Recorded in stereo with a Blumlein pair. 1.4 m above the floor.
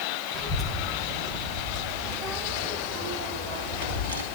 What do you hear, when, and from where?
0.3 s a child speaking: 5° left, 5 m; by 4.2 s 65° right, 2.5 m